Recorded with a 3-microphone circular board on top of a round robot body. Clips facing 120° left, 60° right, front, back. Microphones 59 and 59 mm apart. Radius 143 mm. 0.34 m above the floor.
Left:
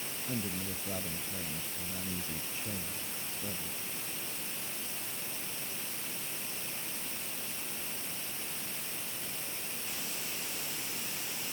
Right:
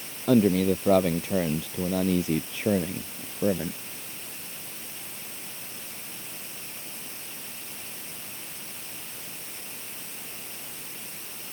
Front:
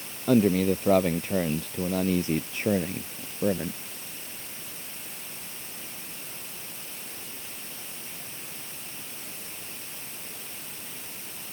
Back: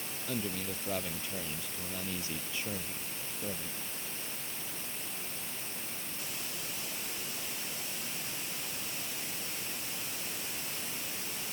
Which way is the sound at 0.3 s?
40° right.